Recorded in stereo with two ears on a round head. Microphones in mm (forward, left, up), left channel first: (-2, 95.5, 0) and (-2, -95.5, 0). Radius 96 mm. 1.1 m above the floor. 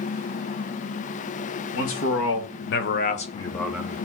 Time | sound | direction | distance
1.7 | a man speaking | 75° left (ahead or behind) | 1.7 m